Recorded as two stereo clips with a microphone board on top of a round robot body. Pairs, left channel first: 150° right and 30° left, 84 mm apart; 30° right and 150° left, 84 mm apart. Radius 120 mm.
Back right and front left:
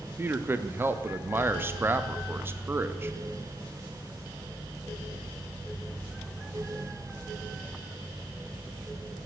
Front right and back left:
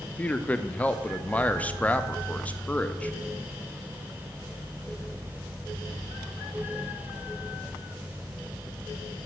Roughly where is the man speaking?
Ahead.